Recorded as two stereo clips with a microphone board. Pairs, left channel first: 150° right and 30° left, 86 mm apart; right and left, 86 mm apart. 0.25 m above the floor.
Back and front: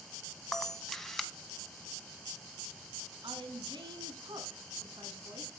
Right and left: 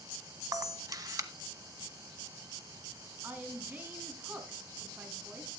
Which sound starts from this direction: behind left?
A camera shutter, at 0.5 s.